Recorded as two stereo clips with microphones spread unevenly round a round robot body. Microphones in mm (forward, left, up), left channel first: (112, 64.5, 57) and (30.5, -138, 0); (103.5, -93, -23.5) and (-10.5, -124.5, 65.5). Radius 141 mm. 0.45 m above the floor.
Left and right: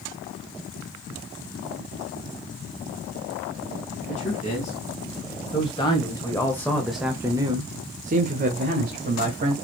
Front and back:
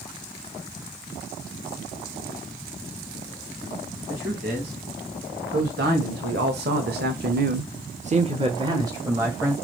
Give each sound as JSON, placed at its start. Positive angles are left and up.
{"t": 4.1, "sound": "a man speaking", "azimuth_deg": 135, "distance_m": 4.5}